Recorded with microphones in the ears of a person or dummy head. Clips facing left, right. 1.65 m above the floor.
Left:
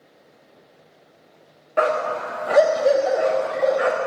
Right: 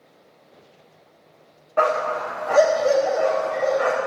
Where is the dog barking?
20° left (ahead or behind), 1.2 m.